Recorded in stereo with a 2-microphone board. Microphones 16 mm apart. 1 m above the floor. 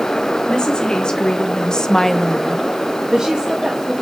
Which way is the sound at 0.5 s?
75° left (ahead or behind).